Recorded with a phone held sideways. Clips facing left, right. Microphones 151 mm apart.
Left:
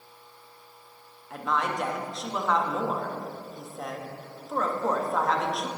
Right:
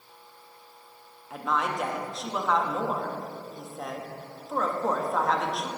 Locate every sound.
1.3 s a woman speaking: 5° right (ahead or behind), 1.1 m